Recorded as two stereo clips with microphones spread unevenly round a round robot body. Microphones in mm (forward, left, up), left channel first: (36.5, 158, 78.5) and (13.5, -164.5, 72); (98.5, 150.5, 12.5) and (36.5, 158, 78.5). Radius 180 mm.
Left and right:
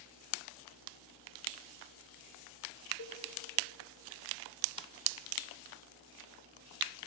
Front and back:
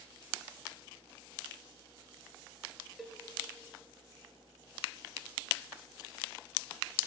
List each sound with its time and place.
3.0 s a cowbell: 50° left, 1.5 m